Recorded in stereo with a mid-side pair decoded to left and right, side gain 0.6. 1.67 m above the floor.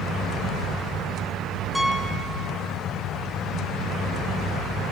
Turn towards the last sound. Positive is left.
turn(degrees=0)